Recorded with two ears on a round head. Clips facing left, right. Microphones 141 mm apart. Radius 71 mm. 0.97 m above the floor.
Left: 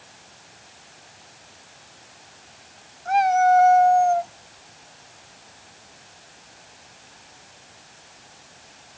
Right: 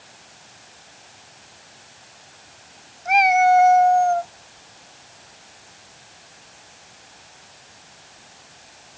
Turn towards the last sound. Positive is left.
turn(degrees=10)  # may be behind; listen again after turning